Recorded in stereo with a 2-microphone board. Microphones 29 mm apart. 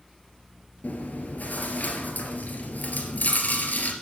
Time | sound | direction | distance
0.8 | chewing | 75° left (ahead or behind) | 2.5 m